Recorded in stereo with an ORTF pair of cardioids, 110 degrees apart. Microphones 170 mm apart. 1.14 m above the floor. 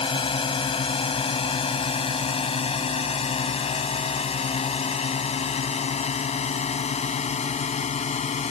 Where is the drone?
30° left; by 8.5 s 40° left.